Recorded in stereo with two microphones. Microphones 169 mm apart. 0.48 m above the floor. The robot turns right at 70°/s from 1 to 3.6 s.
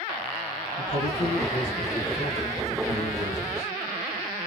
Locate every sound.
0.8 s a man speaking: 45° left, 1.8 m; by 3.7 s 135° right, 1.8 m